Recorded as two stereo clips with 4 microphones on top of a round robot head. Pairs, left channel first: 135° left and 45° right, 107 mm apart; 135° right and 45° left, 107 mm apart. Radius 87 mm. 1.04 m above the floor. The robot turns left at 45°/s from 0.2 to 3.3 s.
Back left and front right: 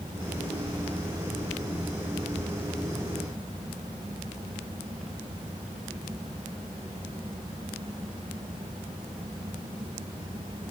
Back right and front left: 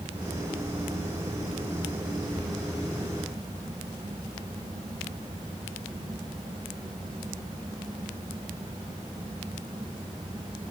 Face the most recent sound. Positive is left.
No sound to turn to.